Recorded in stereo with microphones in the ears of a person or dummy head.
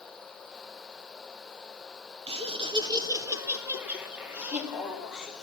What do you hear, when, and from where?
2.3 s laughter: 30° right (ahead or behind), 1.0 m; by 5.4 s centre (ahead or behind), 3.5 m